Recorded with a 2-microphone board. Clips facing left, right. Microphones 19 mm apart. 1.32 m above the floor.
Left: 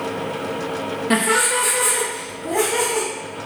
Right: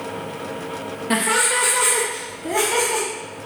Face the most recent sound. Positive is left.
turn(degrees=-65)  # may be behind; listen again after turning